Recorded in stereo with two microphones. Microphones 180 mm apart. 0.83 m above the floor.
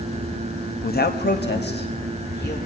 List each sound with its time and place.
0.8 s a man speaking: 55° left (ahead or behind), 0.8 m; by 2.6 s 65° left (ahead or behind), 2 m